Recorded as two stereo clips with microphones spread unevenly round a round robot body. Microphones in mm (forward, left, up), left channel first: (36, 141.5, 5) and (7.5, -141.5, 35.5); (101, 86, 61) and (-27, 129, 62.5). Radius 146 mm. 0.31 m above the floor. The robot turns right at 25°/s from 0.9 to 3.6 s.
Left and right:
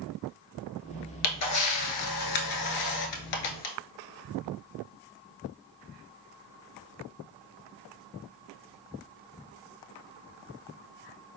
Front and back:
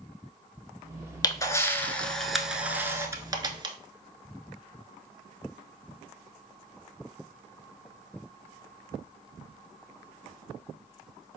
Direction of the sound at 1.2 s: 45° left.